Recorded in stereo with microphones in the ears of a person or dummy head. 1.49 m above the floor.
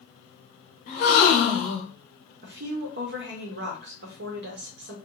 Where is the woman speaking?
50° right (ahead or behind), 0.7 m.